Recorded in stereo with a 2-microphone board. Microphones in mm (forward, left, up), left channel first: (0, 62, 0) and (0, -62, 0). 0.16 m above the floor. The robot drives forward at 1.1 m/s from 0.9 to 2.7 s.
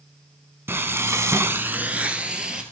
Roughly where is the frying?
Centre.